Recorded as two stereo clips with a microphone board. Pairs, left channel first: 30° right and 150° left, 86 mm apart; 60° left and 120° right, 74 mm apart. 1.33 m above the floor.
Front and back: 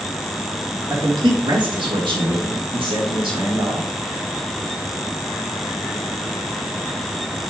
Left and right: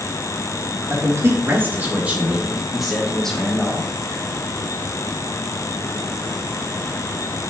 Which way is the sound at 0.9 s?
170° right.